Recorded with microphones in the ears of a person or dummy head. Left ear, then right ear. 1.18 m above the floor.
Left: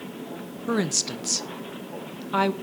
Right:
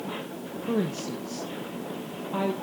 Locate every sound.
0.7 s a woman speaking: 60° left (ahead or behind), 1.1 m